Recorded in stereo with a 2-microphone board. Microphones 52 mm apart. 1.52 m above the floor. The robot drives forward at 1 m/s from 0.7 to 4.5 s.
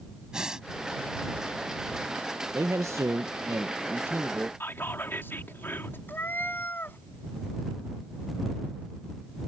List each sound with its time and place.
0.3 s breathing: 15° right (ahead or behind)
2.5 s a man speaking: 60° right (ahead or behind); by 4.5 s 35° right (ahead or behind)
4.6 s whispering: 50° left (ahead or behind)
6.1 s a cat meowing: 40° left (ahead or behind)